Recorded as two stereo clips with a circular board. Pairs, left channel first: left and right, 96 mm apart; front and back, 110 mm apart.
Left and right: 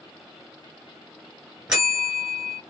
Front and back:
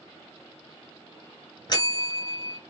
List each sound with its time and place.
1.7 s a bell: 10° right, 1.7 m